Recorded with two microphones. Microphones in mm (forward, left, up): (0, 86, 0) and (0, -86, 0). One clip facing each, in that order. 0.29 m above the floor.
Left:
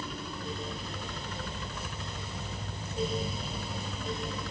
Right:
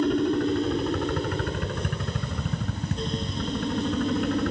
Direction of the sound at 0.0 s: 60° right (ahead or behind).